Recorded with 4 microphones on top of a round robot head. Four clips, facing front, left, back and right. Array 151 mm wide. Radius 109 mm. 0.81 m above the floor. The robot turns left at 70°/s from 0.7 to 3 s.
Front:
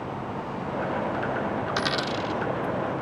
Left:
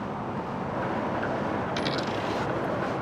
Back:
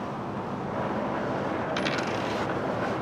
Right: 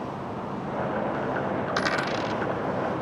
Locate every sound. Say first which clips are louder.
1.7 s a dropped coin: right 2 dB, front 1 dB; 50° right; by 2.4 s 100° right